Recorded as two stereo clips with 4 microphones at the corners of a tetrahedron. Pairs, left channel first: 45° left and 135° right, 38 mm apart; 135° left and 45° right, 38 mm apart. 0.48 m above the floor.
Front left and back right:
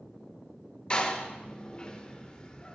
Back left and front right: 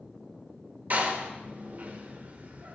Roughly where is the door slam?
Ahead.